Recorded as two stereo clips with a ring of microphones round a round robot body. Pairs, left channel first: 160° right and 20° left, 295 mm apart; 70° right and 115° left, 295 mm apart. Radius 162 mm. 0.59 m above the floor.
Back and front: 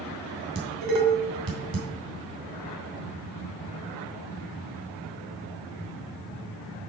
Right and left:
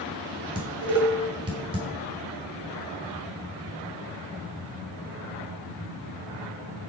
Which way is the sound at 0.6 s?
40° left.